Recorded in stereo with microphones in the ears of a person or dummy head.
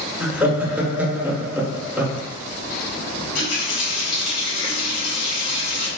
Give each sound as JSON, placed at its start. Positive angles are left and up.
{"t": 0.2, "sound": "laughter", "side_deg": -10, "distance_m": 0.6}
{"t": 3.2, "sound": "a running tap", "side_deg": 75, "distance_m": 1.4}